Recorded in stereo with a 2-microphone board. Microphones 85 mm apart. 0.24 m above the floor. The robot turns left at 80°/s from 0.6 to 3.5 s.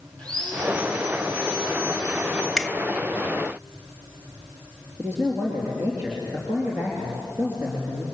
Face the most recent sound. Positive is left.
turn(degrees=-25)  # may be behind; listen again after turning